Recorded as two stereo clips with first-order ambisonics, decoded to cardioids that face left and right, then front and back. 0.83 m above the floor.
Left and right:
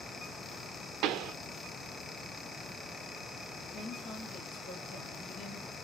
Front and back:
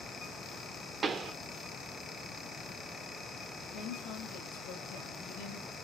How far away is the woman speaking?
About 1.9 m.